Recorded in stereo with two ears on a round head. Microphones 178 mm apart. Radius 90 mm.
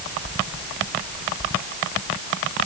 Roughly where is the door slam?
I don't hear a door slam.